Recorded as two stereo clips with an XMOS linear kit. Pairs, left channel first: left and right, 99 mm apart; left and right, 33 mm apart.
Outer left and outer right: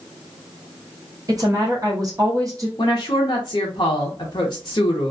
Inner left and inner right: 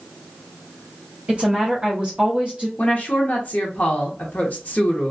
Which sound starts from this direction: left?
A woman speaking, at 2.8 s.